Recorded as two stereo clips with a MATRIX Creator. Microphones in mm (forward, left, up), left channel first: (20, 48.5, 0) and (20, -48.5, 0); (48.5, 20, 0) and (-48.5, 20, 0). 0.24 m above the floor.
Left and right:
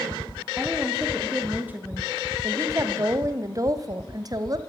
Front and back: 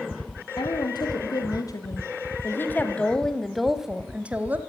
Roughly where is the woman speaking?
Ahead.